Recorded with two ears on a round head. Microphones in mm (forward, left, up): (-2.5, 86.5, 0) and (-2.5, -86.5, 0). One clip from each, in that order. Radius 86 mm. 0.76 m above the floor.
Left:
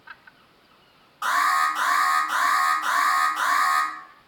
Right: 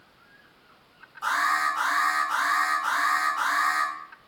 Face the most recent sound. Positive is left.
turn(degrees=65)  # may be behind; listen again after turning